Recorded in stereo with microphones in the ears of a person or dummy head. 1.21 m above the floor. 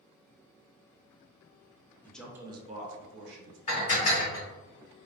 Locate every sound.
2.0 s a man speaking: 10° left (ahead or behind), 0.5 m; by 3.6 s 65° right (ahead or behind), 0.9 m
3.7 s dishes clattering: 40° left (ahead or behind), 1.3 m